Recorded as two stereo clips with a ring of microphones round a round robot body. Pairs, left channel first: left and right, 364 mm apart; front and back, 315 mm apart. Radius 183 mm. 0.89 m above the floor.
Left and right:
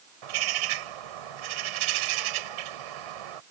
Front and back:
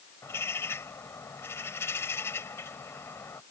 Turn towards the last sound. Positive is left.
turn(degrees=-85)